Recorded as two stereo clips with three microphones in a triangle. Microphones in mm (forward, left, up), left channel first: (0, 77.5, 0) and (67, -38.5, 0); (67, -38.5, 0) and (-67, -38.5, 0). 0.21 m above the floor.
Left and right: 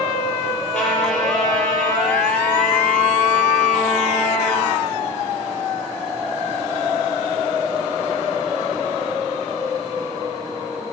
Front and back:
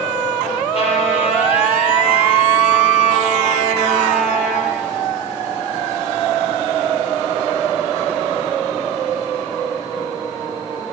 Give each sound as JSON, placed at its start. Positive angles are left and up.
{"t": 0.7, "sound": "a trumpet", "azimuth_deg": 35, "distance_m": 4.0}